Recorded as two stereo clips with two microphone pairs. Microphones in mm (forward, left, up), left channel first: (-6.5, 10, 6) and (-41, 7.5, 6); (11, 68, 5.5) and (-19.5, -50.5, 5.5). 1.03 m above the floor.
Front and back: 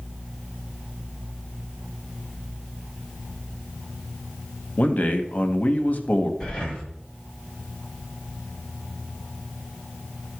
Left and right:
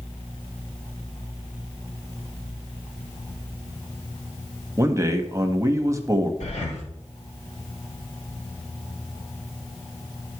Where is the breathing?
70° left, 1.7 m.